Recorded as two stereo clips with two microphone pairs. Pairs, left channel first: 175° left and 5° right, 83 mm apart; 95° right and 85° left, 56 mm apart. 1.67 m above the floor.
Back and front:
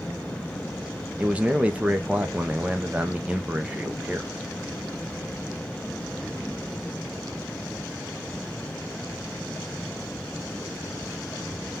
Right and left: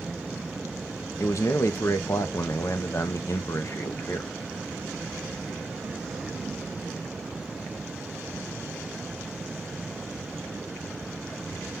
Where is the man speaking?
75° right, 0.6 m.